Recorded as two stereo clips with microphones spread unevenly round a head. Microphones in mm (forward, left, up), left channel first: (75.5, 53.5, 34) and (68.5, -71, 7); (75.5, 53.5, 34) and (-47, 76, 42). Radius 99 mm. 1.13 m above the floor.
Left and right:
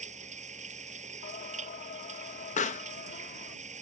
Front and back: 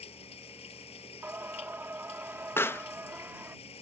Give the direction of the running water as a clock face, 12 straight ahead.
2 o'clock.